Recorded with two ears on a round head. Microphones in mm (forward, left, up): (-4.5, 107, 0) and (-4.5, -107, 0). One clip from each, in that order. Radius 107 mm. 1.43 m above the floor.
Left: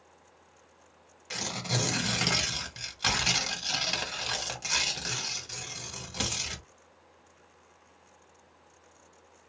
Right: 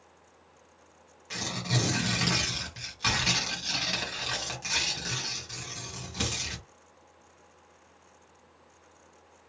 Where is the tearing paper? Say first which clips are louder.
Even; 20° left (ahead or behind), 1.5 m.